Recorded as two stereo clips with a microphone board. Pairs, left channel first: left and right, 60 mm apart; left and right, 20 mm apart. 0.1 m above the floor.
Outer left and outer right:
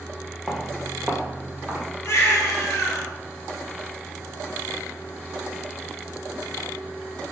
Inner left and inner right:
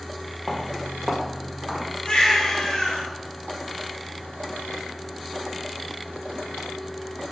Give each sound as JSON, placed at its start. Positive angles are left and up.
{"t": 0.5, "sound": "footsteps", "side_deg": -5, "distance_m": 2.0}
{"t": 2.0, "sound": "a baby crying", "side_deg": 50, "distance_m": 2.0}